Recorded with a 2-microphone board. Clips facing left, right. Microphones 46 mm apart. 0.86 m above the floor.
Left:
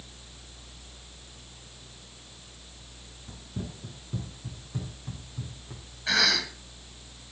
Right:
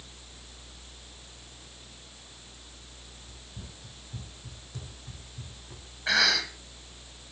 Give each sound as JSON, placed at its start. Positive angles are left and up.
{"t": 3.3, "sound": "running footsteps", "side_deg": 60, "distance_m": 1.9}
{"t": 6.1, "sound": "a cough", "side_deg": -20, "distance_m": 5.5}